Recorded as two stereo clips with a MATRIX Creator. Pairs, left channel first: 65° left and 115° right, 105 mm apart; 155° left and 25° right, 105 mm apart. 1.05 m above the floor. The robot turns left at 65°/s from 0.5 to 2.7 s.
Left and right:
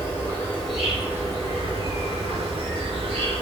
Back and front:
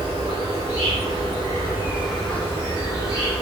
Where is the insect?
5° right, 1.5 m; by 3.4 s 145° right, 1.5 m.